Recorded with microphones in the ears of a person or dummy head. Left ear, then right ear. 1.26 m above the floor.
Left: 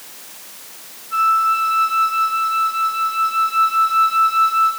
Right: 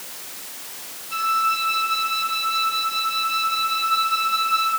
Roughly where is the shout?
No shout in this recording.